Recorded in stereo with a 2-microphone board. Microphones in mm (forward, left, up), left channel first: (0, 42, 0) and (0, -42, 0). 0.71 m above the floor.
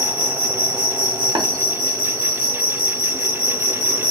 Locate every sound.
0.0 s an insect: 65° left (ahead or behind), 1.5 m
1.4 s tapping: 65° right (ahead or behind), 0.7 m